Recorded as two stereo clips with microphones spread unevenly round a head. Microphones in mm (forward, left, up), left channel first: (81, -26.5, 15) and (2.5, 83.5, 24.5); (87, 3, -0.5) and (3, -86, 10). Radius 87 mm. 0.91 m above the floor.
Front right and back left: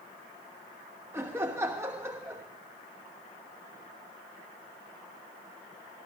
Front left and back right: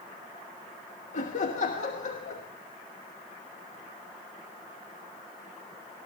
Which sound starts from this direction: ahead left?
Laughter, at 1.1 s.